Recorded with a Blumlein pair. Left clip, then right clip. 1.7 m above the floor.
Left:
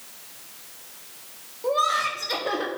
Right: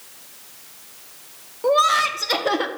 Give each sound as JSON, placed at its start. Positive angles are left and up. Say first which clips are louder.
{"t": 1.6, "sound": "laughter", "louder": "right 6 dB", "azimuth_deg": -70, "distance_m": 1.2}